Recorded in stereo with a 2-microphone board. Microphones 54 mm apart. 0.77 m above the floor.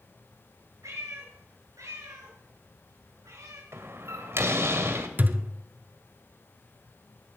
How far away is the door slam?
About 2 m.